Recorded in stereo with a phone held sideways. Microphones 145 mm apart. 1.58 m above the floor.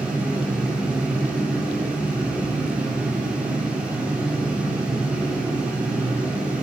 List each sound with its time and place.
0.0 s a fan: 10° right (ahead or behind), 4 m